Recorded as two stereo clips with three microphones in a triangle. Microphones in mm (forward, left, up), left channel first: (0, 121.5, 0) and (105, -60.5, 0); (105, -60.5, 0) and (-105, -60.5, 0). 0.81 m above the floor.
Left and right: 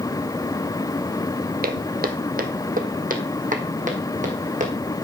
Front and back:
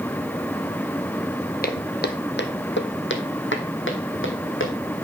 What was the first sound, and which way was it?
Footsteps, 30° right.